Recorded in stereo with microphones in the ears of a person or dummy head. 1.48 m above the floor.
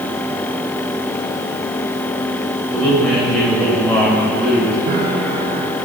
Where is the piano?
50° right (ahead or behind), 3.5 m.